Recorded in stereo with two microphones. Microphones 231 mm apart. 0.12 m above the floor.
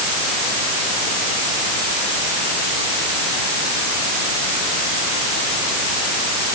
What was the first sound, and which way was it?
Only background noise.